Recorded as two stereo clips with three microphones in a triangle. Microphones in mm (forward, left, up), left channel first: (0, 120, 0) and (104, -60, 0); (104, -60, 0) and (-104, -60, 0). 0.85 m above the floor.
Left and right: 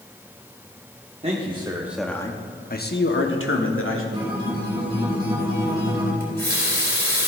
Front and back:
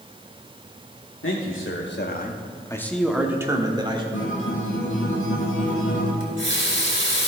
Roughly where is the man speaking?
Ahead.